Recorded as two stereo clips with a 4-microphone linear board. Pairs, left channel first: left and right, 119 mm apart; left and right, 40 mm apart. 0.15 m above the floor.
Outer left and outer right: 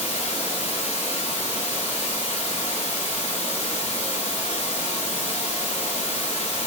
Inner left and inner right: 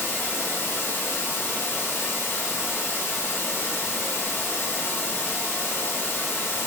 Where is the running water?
70° left (ahead or behind), 3.5 m.